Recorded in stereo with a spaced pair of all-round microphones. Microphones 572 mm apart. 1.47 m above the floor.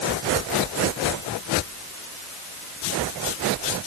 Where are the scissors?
No scissors in this recording.